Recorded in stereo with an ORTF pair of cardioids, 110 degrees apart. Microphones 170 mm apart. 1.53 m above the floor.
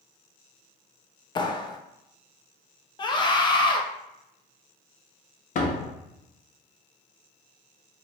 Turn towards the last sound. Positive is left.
turn(degrees=50)